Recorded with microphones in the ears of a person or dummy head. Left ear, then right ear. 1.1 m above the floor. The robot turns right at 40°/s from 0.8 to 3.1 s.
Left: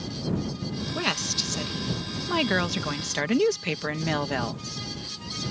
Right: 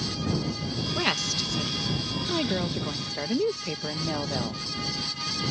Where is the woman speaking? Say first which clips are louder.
Even; 5° right; by 4.6 s 80° left.